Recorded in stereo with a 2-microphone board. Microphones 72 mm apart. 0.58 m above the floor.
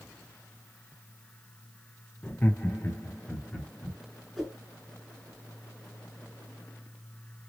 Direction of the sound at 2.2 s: 25° left (ahead or behind).